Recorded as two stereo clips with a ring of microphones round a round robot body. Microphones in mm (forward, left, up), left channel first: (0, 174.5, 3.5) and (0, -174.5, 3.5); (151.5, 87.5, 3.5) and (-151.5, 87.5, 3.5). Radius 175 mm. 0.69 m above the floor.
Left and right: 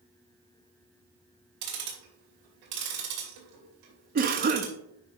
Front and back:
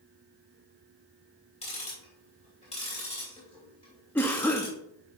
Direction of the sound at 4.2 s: 75° right.